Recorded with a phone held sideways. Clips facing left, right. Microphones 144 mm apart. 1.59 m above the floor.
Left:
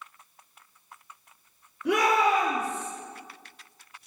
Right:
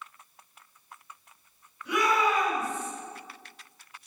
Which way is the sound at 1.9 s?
85° left.